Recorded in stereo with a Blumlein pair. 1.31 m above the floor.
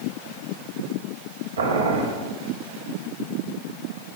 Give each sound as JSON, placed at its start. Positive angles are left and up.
{"t": 1.6, "sound": "boiling", "azimuth_deg": -70, "distance_m": 2.5}